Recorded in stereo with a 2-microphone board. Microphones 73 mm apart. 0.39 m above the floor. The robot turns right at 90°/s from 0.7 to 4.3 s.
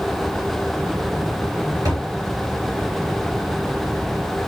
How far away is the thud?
About 3 m.